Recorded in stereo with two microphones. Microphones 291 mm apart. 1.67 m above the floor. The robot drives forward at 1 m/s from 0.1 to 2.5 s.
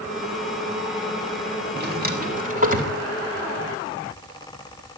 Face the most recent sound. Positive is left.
turn(degrees=-30)  # may be behind; listen again after turning